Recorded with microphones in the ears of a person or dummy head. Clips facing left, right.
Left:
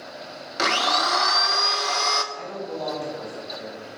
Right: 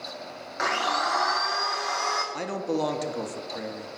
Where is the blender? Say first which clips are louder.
Left 3 dB; 50° left (ahead or behind), 0.7 m.